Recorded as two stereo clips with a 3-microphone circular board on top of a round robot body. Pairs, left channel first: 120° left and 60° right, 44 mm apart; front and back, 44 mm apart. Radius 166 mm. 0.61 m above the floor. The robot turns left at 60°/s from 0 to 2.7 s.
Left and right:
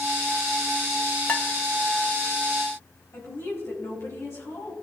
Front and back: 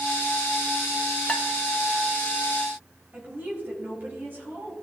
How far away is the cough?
I don't hear a cough.